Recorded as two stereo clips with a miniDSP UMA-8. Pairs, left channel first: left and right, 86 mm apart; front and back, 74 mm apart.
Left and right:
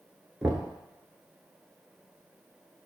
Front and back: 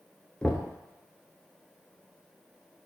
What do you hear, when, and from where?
0.4 s knocking: 35° right, 0.8 m